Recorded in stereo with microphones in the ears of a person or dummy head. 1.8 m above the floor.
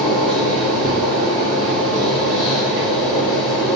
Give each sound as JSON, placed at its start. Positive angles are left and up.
{"t": 0.0, "sound": "a machine running", "side_deg": 5, "distance_m": 3.0}